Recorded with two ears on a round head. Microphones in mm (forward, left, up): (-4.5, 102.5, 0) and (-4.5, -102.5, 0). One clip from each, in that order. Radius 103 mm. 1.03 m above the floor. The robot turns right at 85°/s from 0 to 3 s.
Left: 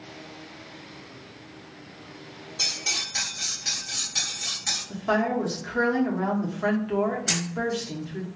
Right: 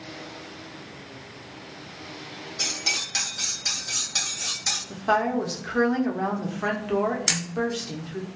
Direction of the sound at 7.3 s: 55° right (ahead or behind).